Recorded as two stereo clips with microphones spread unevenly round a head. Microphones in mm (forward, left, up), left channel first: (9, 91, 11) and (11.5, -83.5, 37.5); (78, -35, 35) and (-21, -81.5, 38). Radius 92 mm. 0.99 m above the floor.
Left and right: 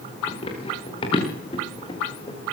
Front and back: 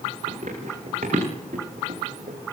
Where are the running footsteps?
155° left, 6 m; by 2.4 s 160° left, 5 m.